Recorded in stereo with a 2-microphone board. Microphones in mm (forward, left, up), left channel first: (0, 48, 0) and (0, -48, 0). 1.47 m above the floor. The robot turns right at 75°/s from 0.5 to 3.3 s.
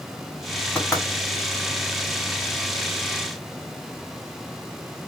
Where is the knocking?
15° left (ahead or behind), 2.5 m; by 1.1 s 35° left (ahead or behind), 2.5 m.